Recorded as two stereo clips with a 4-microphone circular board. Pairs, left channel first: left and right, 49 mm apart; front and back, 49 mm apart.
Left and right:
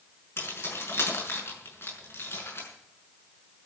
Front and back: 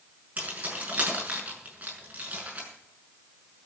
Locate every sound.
0.4 s keys jangling: 120° left, 5.5 m